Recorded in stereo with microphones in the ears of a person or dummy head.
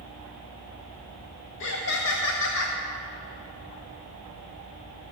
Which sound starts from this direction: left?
Laughter, at 1.6 s.